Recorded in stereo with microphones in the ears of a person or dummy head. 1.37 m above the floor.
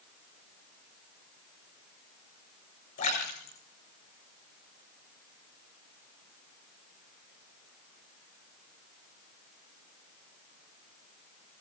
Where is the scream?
No scream in this recording.